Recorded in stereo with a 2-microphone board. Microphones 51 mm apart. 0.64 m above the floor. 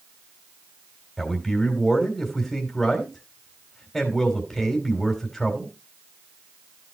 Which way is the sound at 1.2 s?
5° left (ahead or behind).